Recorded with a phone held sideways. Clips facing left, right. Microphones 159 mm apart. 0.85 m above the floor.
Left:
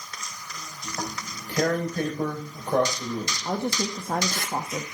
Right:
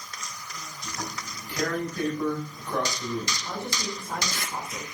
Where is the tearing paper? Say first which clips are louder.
Left 3 dB; 50° left (ahead or behind), 5 m.